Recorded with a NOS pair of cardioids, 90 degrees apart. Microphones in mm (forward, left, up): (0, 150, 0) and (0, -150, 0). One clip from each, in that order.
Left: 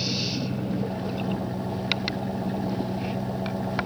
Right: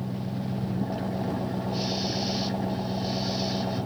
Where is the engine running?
10° right.